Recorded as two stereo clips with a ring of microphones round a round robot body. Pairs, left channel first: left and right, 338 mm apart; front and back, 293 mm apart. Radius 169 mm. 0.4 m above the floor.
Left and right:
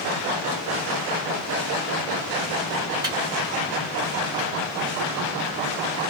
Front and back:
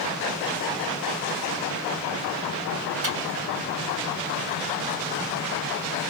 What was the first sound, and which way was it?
A microwave, 165° right.